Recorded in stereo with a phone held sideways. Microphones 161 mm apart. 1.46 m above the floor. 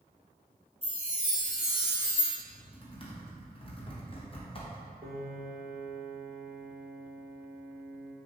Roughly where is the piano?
Right.